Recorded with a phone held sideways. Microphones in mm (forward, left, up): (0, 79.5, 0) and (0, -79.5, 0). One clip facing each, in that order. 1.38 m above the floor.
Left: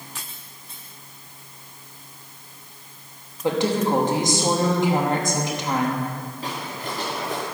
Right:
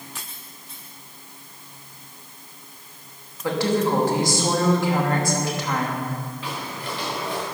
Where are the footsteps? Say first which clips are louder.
Left 1 dB; 40° left (ahead or behind), 6.5 m; by 7.4 s 50° left (ahead or behind), 6.5 m.